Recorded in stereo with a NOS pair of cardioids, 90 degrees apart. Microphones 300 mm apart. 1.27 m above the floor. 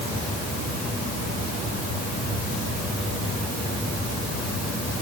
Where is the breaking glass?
No breaking glass in this recording.